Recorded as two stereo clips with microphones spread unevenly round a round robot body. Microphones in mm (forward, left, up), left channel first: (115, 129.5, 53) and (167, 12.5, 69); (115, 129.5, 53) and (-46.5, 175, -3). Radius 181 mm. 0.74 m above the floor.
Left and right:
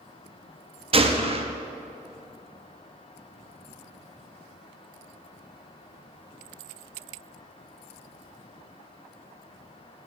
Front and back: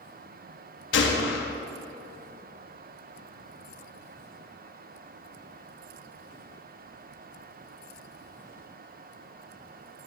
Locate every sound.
0.9 s a gunshot: 15° right, 0.7 m